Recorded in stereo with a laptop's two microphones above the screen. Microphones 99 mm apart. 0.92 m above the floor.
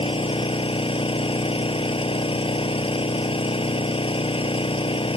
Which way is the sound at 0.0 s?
65° left (ahead or behind).